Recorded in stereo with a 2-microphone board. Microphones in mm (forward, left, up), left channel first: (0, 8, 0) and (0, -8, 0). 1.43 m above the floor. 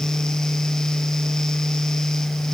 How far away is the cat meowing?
No cat meowing in this recording.